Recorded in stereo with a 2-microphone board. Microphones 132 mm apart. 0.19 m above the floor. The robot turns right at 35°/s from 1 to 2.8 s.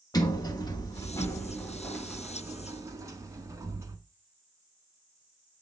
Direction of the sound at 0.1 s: 145° left.